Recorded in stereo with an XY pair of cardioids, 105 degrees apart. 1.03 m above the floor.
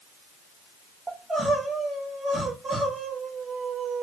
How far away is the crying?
About 1.1 m.